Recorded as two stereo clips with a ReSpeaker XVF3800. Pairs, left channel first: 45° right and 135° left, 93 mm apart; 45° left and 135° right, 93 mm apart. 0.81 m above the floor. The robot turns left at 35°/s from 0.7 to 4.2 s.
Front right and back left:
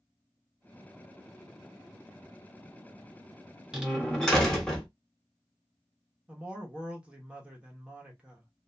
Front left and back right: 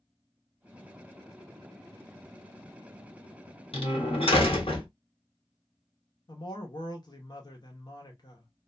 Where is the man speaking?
60° left, 0.9 m.